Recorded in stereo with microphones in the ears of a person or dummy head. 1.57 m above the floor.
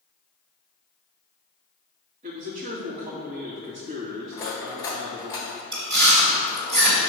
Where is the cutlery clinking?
20° left (ahead or behind), 1.4 m.